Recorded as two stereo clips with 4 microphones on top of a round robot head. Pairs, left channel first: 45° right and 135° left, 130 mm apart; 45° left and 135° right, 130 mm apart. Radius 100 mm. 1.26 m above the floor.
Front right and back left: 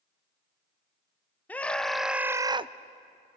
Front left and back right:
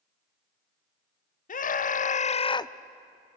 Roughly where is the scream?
Ahead left.